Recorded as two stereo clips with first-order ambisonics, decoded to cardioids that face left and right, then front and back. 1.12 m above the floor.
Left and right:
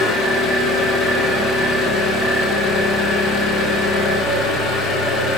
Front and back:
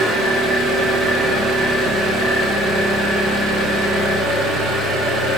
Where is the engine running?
135° left, 0.9 m.